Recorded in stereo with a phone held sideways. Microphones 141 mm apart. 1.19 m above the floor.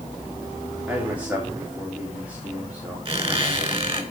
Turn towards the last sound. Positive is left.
turn(degrees=-40)  # may be behind; listen again after turning